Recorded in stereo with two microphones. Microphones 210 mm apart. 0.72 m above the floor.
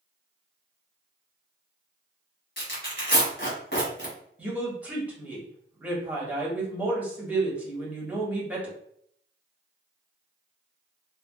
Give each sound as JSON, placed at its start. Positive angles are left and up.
{"t": 2.6, "sound": "tearing paper", "side_deg": 50, "distance_m": 1.4}
{"t": 4.4, "sound": "a woman speaking", "side_deg": -5, "distance_m": 1.2}